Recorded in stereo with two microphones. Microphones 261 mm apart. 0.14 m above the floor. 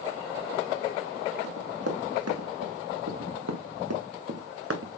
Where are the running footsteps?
65° right (ahead or behind), 2 m; by 4.9 s 60° right (ahead or behind), 1.2 m.